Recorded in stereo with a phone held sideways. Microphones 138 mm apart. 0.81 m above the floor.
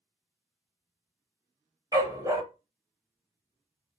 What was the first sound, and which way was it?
A dog barking, 25° right (ahead or behind).